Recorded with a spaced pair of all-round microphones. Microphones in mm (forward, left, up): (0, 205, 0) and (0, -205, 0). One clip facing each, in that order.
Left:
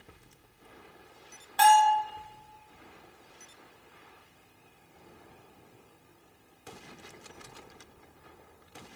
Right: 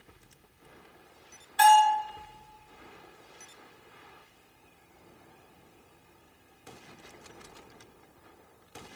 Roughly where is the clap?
No clap in this recording.